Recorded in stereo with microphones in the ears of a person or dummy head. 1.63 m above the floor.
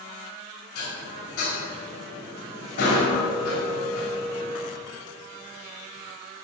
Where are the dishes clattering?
50° left (ahead or behind), 3 m.